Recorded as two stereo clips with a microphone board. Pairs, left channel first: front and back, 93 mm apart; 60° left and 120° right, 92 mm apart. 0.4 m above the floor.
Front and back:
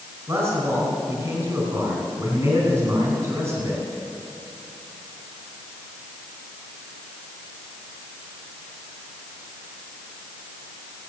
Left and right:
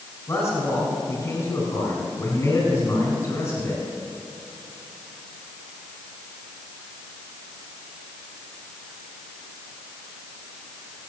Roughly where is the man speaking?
Behind left.